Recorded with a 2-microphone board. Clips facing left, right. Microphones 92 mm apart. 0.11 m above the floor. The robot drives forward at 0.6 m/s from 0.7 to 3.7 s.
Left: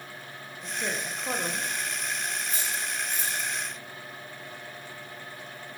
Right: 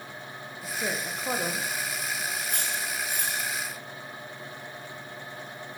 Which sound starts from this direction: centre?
A woman speaking, at 0.6 s.